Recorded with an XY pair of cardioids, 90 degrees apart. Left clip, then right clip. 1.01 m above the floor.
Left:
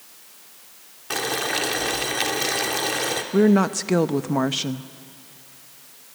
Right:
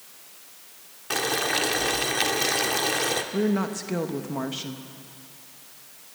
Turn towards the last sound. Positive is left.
turn(degrees=60)